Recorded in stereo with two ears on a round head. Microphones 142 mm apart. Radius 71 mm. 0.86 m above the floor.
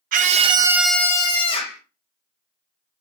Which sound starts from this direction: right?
A scream, at 0.1 s.